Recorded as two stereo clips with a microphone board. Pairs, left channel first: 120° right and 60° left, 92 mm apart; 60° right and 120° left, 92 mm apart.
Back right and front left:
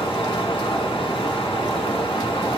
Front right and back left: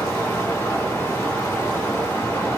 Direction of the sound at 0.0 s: 125° right.